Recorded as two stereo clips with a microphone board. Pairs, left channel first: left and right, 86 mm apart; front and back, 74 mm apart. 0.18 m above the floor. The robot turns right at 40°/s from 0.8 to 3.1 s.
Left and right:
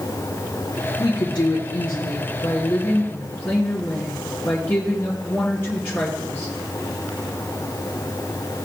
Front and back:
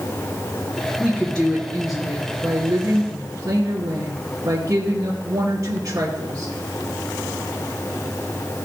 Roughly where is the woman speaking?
Ahead left.